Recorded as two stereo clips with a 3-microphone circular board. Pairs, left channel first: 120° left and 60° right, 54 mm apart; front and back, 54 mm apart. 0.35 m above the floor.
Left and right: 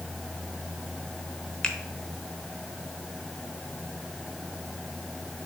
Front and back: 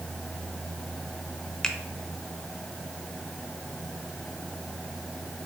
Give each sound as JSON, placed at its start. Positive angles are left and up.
{"t": 1.6, "sound": "a finger snap", "azimuth_deg": 60, "distance_m": 0.7}